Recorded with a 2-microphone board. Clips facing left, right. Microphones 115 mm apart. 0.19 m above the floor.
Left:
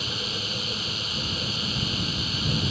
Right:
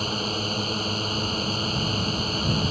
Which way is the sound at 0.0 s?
40° right (ahead or behind).